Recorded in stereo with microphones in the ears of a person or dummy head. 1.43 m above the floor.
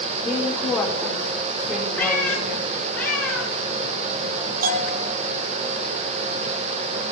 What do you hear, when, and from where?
0.2 s a woman speaking: centre (ahead or behind), 4.5 m
2.0 s a cat meowing: 10° left (ahead or behind), 3.5 m
4.6 s a bell: 55° right (ahead or behind), 9 m